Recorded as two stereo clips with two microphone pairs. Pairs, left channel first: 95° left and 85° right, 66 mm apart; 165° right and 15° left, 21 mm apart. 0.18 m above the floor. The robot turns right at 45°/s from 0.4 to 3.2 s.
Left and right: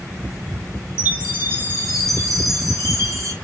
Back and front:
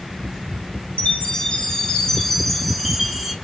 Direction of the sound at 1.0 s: 160° right.